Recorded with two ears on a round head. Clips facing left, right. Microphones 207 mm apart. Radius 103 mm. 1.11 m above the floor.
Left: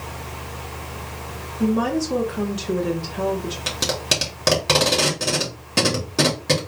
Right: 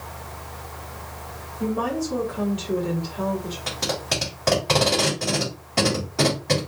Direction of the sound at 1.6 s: 65° left (ahead or behind).